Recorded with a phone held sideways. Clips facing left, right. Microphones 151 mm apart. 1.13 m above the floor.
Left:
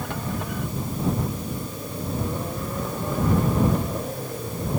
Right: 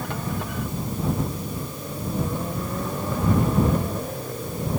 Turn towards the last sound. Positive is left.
No sound to turn to.